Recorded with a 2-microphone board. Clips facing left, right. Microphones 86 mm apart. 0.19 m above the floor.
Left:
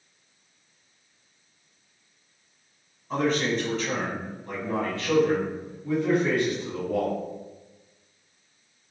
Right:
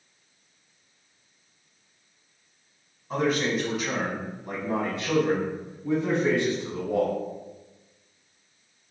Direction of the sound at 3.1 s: 5° right (ahead or behind).